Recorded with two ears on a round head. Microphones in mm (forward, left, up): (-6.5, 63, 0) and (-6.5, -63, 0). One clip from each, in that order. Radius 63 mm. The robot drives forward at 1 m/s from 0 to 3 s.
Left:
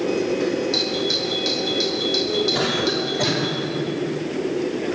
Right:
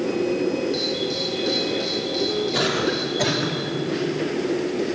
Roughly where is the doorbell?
Left.